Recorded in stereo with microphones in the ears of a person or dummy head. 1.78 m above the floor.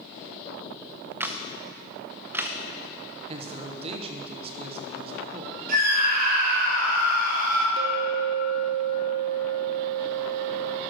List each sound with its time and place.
1.2 s a camera shutter: 10° right (ahead or behind), 0.6 m
3.3 s a man speaking: 35° right (ahead or behind), 0.9 m
5.7 s a scream: 50° right (ahead or behind), 4 m
7.8 s a clink: 55° right (ahead or behind), 1.2 m